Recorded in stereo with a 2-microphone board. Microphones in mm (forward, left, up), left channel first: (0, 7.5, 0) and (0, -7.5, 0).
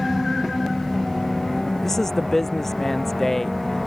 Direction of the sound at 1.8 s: 20° left (ahead or behind).